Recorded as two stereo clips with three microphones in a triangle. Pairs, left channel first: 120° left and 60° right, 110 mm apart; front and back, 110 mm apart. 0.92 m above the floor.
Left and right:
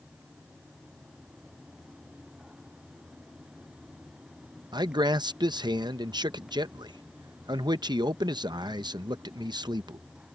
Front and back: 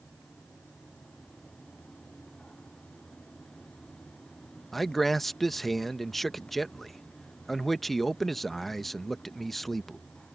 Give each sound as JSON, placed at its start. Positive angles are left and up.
{"t": 4.7, "sound": "a man speaking", "azimuth_deg": -90}